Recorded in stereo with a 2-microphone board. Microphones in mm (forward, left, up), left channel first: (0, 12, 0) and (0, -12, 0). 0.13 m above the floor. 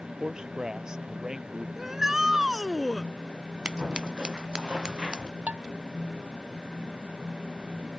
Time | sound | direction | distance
0.2 | a man speaking | 30° right (ahead or behind) | ?
1.8 | a shout | 20° right (ahead or behind) | ?
3.6 | scissors | 35° right (ahead or behind) | ?
5.5 | dishes clattering | 75° right (ahead or behind) | ?